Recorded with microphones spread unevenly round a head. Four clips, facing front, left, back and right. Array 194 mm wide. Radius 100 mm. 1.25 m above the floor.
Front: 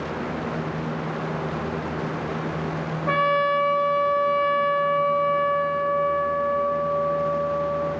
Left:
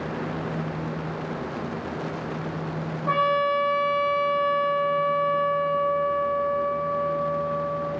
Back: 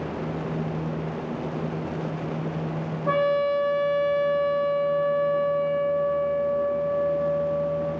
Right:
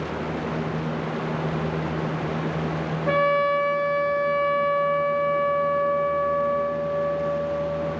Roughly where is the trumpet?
Behind right.